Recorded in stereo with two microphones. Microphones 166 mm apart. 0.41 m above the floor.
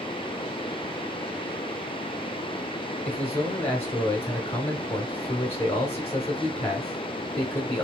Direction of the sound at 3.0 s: 40° left (ahead or behind).